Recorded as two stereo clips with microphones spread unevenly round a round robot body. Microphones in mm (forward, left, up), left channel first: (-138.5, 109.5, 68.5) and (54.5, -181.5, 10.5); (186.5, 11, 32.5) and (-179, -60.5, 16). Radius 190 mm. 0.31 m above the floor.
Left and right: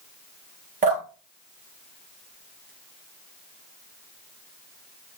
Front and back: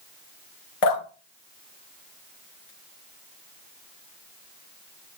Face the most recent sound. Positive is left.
turn(degrees=15)